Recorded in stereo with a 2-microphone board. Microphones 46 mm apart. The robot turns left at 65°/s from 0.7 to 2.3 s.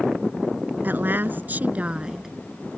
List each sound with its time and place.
0.8 s a woman speaking: 70° right; by 2.3 s 165° right